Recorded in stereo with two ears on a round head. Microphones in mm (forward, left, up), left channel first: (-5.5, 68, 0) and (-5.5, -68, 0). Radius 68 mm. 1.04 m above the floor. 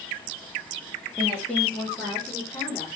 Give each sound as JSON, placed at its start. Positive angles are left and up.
{"t": 1.2, "sound": "a woman speaking", "side_deg": 5, "distance_m": 2.0}